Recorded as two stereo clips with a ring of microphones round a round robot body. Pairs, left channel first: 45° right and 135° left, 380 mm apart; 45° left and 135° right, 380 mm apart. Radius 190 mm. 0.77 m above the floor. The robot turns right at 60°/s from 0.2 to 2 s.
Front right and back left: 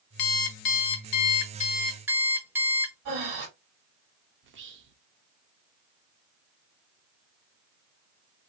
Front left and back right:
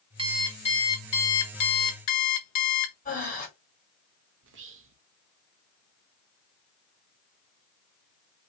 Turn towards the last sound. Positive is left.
turn(degrees=180)